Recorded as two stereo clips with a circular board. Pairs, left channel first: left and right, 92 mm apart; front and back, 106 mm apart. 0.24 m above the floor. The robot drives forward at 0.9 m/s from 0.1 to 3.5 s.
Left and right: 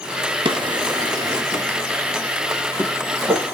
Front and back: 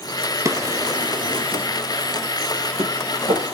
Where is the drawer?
120° right, 1.6 m; by 3.5 s 160° right, 3.5 m.